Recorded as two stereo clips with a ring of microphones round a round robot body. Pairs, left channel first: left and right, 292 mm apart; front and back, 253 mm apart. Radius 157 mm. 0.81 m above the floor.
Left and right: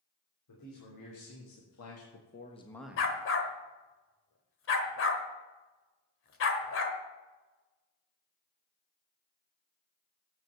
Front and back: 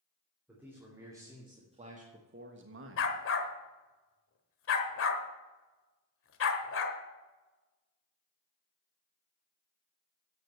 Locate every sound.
0.5 s a man speaking: 95° left, 3 m; by 3.2 s 155° right, 1.4 m
3.0 s a dog barking: 40° left, 1.2 m